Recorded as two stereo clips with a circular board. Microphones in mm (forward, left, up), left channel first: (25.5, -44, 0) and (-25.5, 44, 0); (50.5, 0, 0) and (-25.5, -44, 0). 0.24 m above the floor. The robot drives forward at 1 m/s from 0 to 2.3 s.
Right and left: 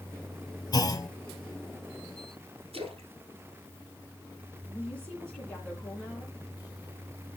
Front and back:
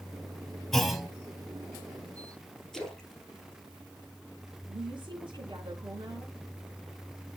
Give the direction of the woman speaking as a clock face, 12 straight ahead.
5 o'clock.